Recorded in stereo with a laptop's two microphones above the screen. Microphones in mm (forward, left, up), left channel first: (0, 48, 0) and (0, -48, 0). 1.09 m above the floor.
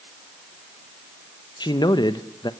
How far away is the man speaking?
About 0.9 m.